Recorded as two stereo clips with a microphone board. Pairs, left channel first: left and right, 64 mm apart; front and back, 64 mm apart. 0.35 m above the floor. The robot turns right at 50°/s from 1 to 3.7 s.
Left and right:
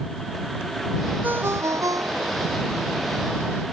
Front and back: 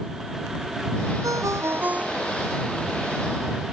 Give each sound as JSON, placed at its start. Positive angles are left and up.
{"t": 1.2, "sound": "a ringtone", "azimuth_deg": -150}